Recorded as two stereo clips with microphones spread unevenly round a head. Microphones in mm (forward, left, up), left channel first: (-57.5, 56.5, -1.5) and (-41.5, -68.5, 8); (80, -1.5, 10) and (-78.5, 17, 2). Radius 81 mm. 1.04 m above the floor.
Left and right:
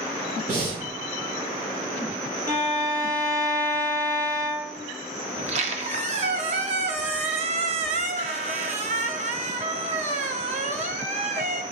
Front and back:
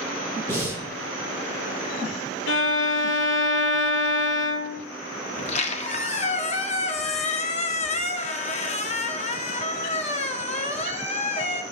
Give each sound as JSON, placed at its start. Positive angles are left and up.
{"t": 0.5, "sound": "breathing", "azimuth_deg": -80, "distance_m": 4.0}
{"t": 2.5, "sound": "a violin", "azimuth_deg": -10, "distance_m": 1.0}
{"t": 5.4, "sound": "a squeak", "azimuth_deg": -50, "distance_m": 0.8}